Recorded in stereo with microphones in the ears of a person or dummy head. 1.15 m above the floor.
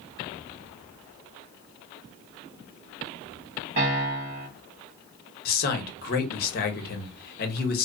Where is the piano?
40° right (ahead or behind), 1.2 m.